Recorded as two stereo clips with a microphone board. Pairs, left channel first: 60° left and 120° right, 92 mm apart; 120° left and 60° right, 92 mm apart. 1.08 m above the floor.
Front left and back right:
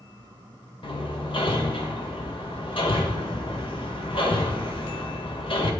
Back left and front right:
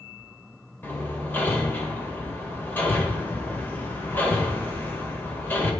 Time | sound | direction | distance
0.8 | hammering | 55° left | 1.7 m